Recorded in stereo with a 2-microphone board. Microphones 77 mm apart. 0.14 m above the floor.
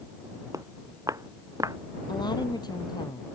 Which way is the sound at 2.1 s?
70° left (ahead or behind).